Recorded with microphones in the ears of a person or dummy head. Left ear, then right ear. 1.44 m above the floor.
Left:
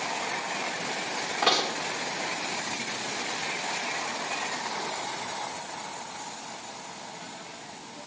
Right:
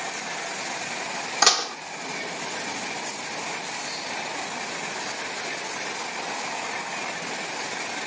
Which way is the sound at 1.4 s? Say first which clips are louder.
Right 4 dB; 75° right (ahead or behind).